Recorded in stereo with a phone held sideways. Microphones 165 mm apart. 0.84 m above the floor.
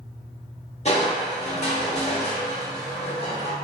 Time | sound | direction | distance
0.8 | crushing | 40° left (ahead or behind) | 0.8 m